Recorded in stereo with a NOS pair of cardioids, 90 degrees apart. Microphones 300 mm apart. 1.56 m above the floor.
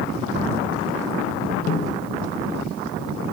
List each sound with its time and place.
1.7 s a snare drum: 60° left, 0.9 m